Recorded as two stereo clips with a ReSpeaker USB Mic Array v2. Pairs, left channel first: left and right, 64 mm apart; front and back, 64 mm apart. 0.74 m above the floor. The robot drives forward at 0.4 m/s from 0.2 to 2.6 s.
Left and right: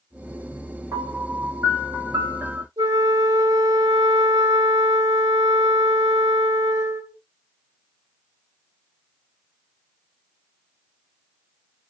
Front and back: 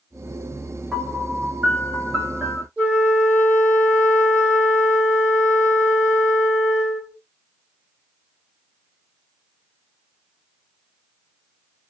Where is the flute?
115° right, 1.3 m.